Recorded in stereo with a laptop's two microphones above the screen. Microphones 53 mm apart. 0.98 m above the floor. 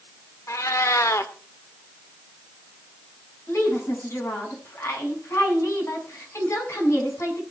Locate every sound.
0.5 s a cat meowing: 70° left (ahead or behind), 1.2 m
3.5 s a woman speaking: 60° left (ahead or behind), 7.5 m